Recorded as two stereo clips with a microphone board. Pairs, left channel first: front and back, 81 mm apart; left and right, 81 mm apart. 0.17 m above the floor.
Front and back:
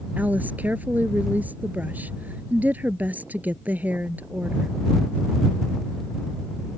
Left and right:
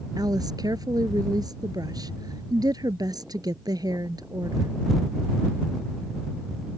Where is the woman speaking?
115° right.